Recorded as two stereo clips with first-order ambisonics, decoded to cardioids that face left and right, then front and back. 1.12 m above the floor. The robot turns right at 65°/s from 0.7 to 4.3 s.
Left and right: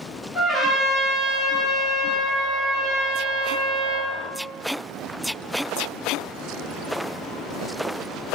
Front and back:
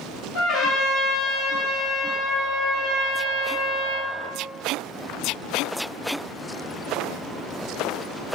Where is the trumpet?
5° right, 1.3 m; by 4.2 s 140° right, 1.3 m.